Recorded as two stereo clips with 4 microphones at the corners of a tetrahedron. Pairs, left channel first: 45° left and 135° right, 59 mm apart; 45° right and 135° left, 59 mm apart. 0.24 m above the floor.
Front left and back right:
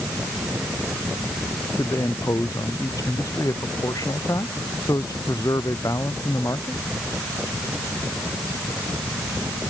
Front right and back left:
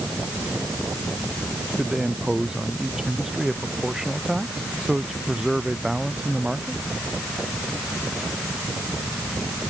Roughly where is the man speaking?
Ahead left.